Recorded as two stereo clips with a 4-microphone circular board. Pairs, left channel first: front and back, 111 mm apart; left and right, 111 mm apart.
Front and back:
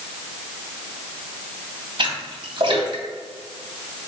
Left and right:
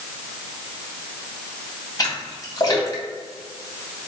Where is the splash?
140° left, 3 m.